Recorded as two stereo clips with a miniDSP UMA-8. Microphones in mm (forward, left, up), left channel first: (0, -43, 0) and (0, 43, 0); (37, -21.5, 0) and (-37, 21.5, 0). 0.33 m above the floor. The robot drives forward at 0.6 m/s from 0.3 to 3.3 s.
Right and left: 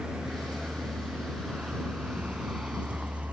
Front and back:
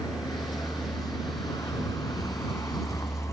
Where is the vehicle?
5° left; by 3.3 s 20° left.